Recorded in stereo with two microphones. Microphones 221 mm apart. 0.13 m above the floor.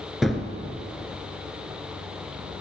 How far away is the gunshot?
About 1.3 m.